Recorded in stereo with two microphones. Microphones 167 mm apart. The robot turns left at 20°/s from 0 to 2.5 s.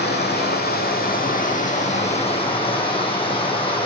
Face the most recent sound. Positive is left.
turn(degrees=30)